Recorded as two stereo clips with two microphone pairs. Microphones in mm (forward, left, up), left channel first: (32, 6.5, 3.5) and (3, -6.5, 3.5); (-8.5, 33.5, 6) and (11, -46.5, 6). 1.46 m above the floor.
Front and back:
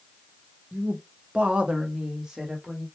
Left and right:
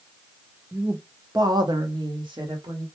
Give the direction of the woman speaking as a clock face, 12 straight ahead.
5 o'clock.